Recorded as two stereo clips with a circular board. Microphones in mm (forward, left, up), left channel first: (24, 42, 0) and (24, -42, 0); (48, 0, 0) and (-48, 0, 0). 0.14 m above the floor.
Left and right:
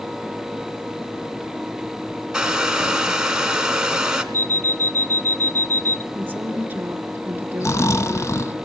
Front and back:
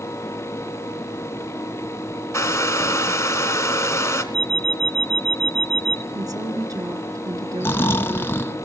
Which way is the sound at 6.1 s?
150° right.